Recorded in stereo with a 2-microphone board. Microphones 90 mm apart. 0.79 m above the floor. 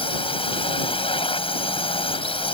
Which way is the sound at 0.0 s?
70° left (ahead or behind).